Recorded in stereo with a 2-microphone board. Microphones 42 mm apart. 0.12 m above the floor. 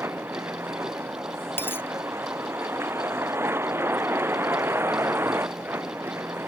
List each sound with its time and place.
0.0 s a vehicle: 75° right (ahead or behind)
1.6 s a dropped coin: 55° left (ahead or behind)